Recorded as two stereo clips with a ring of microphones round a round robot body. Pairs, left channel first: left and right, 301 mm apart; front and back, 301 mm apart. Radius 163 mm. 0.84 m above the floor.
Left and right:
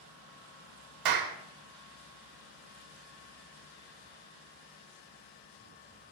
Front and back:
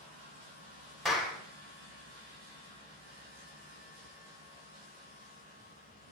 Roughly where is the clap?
Right.